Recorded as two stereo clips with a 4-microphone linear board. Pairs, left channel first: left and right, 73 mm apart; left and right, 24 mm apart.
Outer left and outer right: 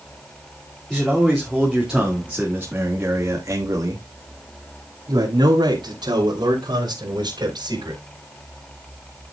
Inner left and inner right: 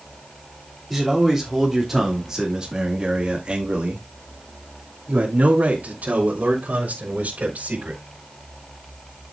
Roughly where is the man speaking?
Centre.